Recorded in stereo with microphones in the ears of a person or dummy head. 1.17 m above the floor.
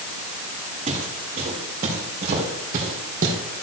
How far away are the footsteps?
About 5 m.